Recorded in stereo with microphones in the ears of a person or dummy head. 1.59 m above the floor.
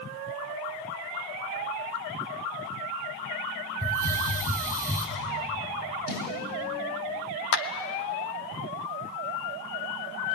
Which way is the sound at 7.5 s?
60° left (ahead or behind).